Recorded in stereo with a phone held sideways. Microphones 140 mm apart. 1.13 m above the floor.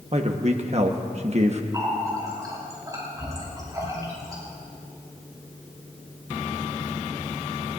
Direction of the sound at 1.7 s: 25° right (ahead or behind).